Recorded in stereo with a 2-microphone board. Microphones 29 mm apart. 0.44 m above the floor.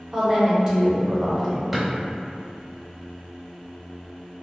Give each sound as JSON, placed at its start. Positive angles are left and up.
{"t": 0.1, "sound": "a woman speaking", "side_deg": -20, "distance_m": 0.9}
{"t": 1.7, "sound": "a drawer", "side_deg": -5, "distance_m": 0.7}